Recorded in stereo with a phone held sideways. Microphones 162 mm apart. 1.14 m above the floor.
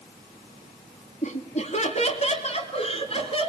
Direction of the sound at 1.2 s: 50° left (ahead or behind).